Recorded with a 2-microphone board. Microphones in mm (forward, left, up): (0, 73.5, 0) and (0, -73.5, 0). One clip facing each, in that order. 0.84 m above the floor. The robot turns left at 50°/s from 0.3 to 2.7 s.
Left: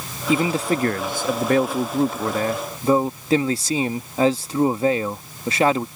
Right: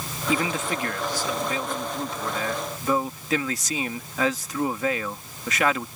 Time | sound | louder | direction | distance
0.3 | a man speaking | left 6 dB | 155° left | ?